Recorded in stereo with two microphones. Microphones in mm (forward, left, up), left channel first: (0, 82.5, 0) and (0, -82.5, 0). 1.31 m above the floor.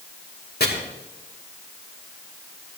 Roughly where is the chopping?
Left.